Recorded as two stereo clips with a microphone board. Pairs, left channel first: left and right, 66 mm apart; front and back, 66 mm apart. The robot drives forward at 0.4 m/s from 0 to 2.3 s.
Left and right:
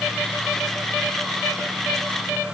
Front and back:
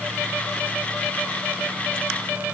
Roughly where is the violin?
I don't hear a violin.